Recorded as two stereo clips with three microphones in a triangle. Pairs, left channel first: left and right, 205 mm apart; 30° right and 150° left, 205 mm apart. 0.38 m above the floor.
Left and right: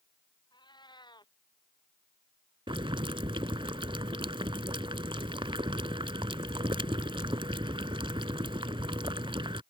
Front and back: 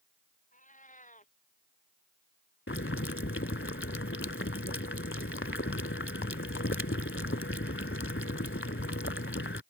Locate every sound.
0.5 s a cat meowing: 20° left
2.7 s boiling: 25° right